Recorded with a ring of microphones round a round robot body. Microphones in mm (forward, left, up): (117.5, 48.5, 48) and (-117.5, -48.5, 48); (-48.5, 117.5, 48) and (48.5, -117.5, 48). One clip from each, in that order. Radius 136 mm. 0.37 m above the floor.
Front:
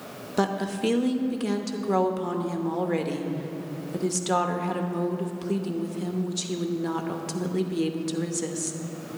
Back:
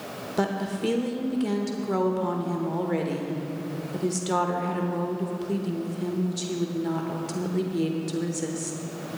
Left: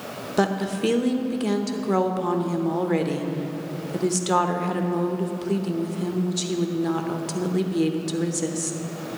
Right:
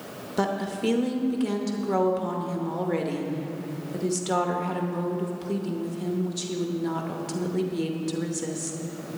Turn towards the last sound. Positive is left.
turn(degrees=60)